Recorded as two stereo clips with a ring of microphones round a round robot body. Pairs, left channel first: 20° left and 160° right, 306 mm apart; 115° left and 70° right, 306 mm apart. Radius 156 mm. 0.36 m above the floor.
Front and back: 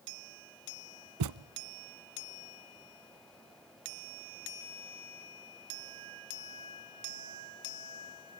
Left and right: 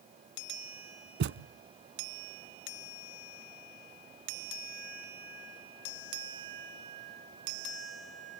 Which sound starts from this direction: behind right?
A thud, at 1.2 s.